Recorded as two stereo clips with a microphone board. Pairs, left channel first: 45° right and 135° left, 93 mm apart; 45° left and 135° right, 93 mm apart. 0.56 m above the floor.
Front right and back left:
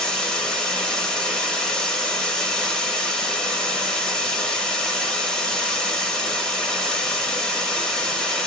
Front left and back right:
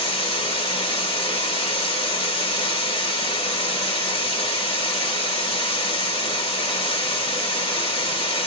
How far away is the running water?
About 1.2 m.